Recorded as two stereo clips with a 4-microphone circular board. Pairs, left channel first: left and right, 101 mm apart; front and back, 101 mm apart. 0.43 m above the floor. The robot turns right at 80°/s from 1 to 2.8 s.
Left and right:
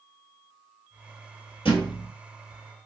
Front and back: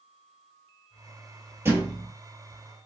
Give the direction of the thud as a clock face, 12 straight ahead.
8 o'clock.